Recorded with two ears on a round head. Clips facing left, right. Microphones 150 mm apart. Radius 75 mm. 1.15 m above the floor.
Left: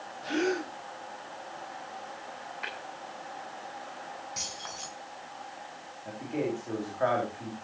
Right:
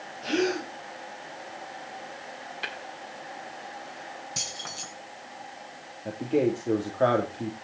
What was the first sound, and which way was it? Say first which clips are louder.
A gasp: right 3 dB; 25° right (ahead or behind).